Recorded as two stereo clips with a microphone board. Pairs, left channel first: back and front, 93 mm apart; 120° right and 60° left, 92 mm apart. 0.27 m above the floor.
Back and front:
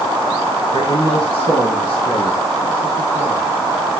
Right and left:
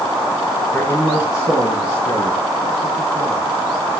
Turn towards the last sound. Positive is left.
turn(degrees=-150)